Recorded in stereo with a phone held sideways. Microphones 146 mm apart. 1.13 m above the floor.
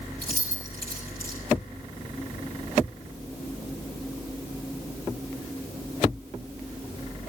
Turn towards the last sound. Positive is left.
turn(degrees=-85)